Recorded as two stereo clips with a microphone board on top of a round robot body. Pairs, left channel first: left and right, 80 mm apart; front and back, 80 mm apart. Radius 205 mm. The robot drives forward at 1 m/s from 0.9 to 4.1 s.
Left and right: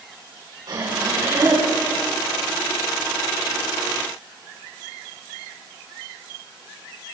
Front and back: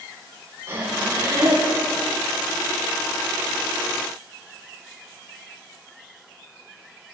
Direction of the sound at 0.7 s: 125° right.